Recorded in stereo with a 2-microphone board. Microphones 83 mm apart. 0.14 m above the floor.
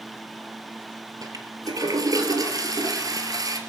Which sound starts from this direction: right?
A toilet flushing, at 1.2 s.